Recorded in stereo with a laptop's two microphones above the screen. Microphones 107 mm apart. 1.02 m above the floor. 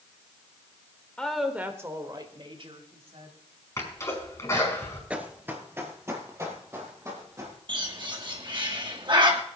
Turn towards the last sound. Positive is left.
turn(degrees=-45)  # may be behind; listen again after turning